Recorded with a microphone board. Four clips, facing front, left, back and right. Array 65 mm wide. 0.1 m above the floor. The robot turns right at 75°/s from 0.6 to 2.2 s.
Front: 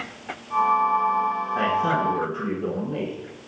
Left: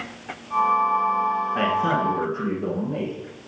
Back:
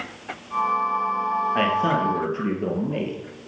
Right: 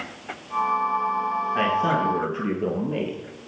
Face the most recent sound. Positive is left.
turn(degrees=-135)